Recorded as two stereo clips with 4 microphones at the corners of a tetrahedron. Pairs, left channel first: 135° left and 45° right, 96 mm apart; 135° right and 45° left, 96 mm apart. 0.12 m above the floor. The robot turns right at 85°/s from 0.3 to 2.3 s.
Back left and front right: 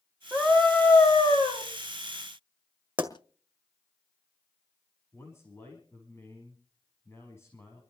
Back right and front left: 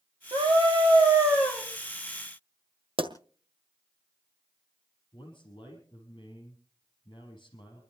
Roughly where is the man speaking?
Behind.